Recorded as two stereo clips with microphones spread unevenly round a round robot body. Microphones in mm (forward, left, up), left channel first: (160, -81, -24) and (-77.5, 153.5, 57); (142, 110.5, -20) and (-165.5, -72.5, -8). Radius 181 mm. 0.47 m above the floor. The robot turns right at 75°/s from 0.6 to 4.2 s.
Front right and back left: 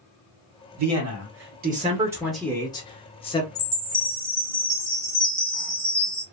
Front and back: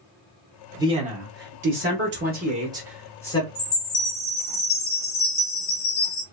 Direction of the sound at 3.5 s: 20° right.